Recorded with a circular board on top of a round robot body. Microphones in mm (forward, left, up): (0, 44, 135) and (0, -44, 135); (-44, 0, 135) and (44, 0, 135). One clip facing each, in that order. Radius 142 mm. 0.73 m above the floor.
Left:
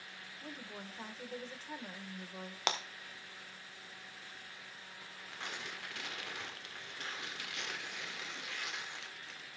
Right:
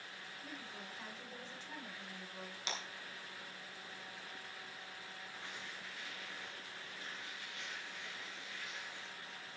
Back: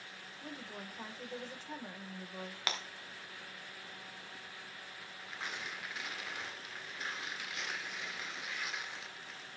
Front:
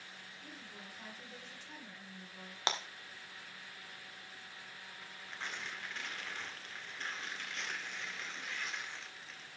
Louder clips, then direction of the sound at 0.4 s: Left 4 dB, back 8 dB; 140° left.